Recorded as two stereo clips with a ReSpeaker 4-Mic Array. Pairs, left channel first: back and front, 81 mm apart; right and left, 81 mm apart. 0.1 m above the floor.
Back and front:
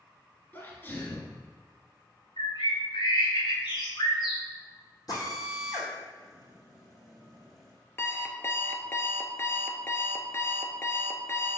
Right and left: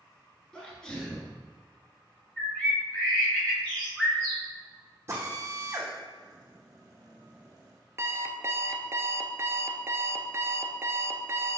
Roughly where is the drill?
Behind left.